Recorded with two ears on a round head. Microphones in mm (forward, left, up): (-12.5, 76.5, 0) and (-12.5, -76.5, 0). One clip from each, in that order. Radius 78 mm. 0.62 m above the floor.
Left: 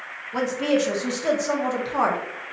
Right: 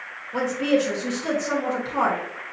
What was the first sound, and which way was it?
A woman speaking, 20° left (ahead or behind).